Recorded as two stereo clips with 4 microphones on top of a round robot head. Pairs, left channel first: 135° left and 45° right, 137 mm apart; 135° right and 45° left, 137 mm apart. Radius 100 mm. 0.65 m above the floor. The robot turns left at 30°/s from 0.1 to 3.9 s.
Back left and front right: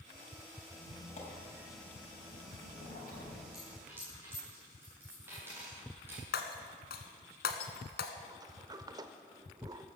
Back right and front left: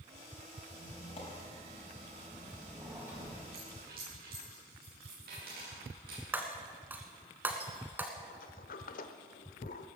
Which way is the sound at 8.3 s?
110° right.